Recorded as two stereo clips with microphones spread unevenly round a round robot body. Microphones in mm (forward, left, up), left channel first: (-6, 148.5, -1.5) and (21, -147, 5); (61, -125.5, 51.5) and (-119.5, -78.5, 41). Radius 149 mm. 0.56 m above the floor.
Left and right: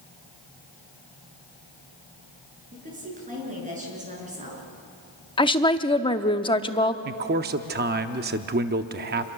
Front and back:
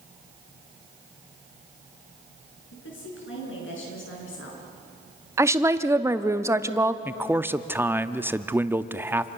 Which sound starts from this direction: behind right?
A man speaking, at 7.0 s.